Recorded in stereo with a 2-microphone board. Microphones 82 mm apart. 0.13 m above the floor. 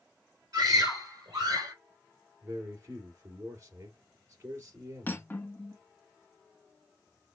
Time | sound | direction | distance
0.5 | a scream | 50° right (ahead or behind) | 3 m
2.4 | a man speaking | 40° right (ahead or behind) | 2.5 m
5.1 | cutlery clinking | 25° left (ahead or behind) | 0.7 m